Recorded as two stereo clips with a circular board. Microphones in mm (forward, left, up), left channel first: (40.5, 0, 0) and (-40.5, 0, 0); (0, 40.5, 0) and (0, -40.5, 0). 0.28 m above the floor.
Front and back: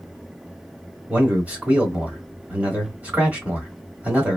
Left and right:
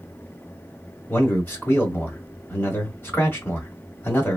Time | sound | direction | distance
1.1 | a man speaking | 125° left | 1.8 m